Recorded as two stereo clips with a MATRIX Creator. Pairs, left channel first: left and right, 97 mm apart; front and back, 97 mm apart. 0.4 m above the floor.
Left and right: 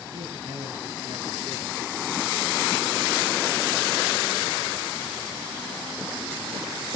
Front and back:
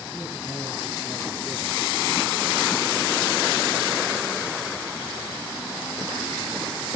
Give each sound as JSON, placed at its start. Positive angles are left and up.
{"t": 0.1, "sound": "a man speaking", "azimuth_deg": -95, "distance_m": 3.5}